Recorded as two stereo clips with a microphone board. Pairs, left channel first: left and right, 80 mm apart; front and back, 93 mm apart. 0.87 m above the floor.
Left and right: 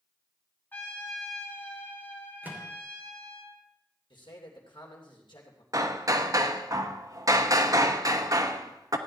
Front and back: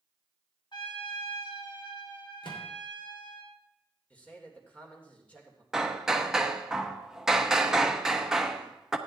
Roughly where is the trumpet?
Ahead left.